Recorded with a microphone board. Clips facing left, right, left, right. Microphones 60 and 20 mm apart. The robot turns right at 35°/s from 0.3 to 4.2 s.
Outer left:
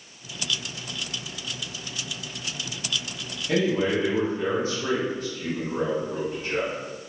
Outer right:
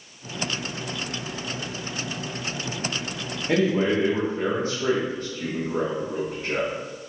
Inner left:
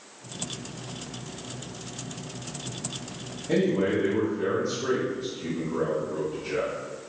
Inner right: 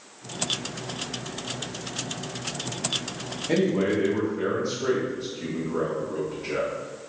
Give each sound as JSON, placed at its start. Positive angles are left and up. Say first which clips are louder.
{"t": 3.5, "sound": "a man speaking", "louder": "outer right 2 dB, inner right 1 dB", "side_deg": -25, "distance_m": 0.7}